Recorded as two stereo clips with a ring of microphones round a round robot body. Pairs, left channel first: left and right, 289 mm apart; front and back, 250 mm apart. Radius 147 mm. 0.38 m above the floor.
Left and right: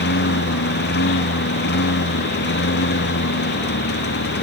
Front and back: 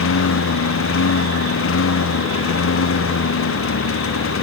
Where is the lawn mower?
35° left.